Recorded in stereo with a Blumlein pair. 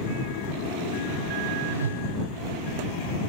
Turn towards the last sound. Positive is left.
turn(degrees=-70)